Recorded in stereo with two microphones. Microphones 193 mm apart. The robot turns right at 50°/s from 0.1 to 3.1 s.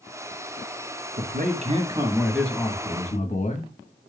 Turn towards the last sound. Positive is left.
turn(degrees=40)